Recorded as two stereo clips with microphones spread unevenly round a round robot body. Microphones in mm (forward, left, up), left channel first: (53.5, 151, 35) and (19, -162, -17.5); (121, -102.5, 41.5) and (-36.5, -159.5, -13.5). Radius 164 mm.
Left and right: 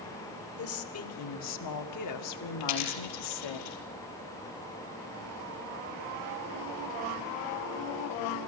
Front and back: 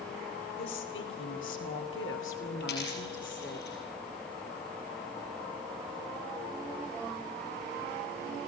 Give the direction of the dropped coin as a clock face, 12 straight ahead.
10 o'clock.